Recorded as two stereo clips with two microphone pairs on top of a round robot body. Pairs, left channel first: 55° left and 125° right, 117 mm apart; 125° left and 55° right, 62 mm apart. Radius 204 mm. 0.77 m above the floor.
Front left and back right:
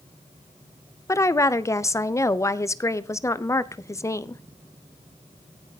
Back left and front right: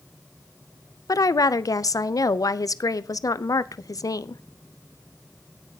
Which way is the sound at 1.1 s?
115° left.